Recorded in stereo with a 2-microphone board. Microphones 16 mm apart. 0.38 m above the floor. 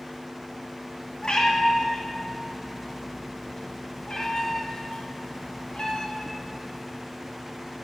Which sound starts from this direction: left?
A cat meowing, at 1.2 s.